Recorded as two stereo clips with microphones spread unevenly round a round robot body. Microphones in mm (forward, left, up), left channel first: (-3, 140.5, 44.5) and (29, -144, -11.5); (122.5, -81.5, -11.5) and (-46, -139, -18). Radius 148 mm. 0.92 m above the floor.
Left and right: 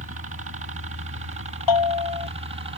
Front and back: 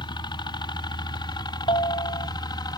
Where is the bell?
95° left.